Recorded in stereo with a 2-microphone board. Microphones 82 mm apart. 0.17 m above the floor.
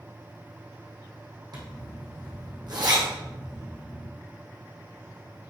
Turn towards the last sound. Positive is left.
turn(degrees=-55)  # may be behind; listen again after turning